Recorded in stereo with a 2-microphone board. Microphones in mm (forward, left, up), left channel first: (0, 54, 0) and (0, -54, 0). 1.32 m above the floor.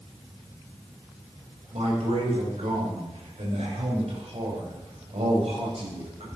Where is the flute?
No flute in this recording.